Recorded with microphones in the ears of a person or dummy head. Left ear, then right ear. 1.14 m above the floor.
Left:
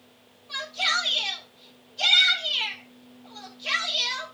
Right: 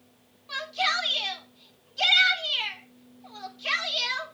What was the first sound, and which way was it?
A shout, 55° right (ahead or behind).